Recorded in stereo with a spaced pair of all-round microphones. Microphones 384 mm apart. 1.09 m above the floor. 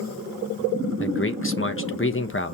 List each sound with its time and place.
1.0 s a man speaking: 35° left (ahead or behind), 1.0 m